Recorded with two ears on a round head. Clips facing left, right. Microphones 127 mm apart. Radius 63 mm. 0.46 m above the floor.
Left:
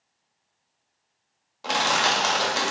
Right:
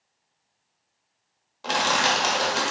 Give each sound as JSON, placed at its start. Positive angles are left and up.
{"t": 1.6, "sound": "crushing", "side_deg": 0, "distance_m": 0.9}